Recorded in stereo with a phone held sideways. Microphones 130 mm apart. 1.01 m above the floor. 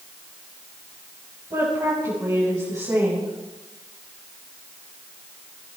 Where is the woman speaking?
30° right (ahead or behind), 6.5 m.